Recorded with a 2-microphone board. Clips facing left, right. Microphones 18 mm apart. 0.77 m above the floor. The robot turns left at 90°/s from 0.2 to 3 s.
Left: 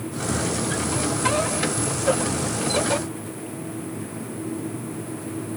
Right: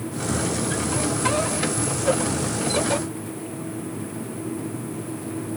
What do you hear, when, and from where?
Only background noise.